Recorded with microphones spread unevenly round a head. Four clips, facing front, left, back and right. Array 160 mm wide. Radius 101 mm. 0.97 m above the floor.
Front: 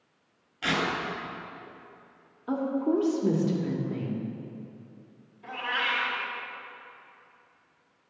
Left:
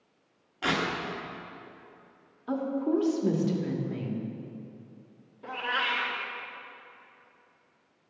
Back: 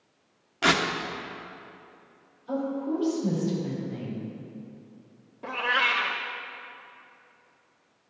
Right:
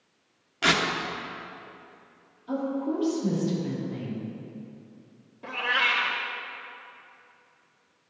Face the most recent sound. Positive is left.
turn(degrees=180)